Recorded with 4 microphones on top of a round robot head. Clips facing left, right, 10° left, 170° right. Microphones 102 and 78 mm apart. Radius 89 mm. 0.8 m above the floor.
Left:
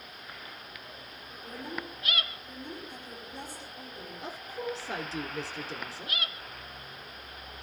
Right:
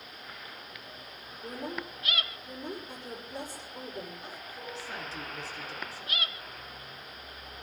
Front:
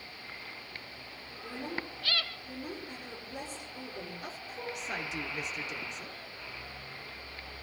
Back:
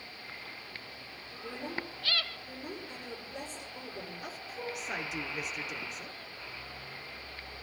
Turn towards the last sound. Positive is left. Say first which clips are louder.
# left 6 dB, even
turn(degrees=100)